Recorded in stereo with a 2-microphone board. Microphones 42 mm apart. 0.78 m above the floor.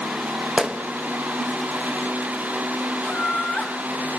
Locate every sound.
0.6 s a gunshot: 25° right (ahead or behind), 0.7 m
3.0 s laughter: 20° left (ahead or behind), 5 m